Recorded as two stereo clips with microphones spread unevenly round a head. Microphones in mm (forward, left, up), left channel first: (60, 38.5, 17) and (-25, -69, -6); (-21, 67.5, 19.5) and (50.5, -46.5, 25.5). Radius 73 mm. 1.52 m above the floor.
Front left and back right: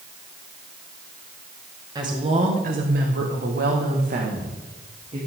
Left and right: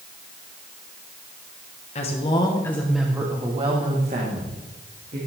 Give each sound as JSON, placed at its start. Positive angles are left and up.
{"t": 1.9, "sound": "a woman speaking", "azimuth_deg": 170, "distance_m": 1.9}